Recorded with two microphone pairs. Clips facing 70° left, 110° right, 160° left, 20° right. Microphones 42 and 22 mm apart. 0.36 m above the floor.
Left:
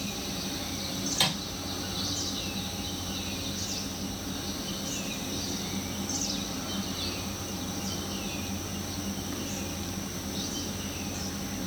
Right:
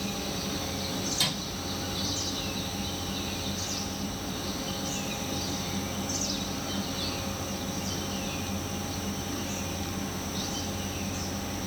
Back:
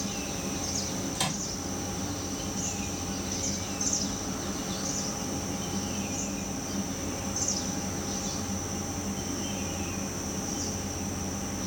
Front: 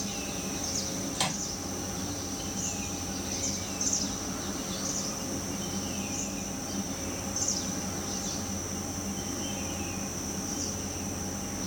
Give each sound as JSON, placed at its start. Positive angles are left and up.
{"t": 1.1, "sound": "a microwave", "azimuth_deg": 55, "distance_m": 0.8}